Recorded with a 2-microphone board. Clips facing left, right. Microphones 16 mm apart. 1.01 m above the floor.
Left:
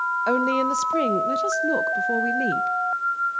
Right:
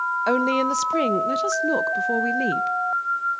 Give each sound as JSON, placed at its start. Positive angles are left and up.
{"t": 0.3, "sound": "a woman speaking", "side_deg": -15, "distance_m": 0.6}